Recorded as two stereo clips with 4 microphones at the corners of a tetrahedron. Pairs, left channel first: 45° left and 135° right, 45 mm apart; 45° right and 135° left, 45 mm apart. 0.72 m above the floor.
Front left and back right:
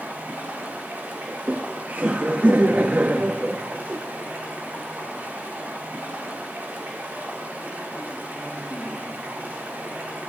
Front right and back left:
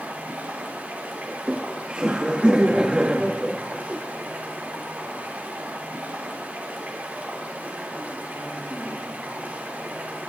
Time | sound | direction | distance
0.0 | running water | straight behind | 1.8 m
1.3 | laughter | 165° right | 0.5 m